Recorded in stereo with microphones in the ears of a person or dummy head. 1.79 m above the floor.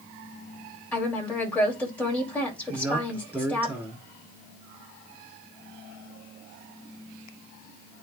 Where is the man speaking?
15° right (ahead or behind), 5.5 m.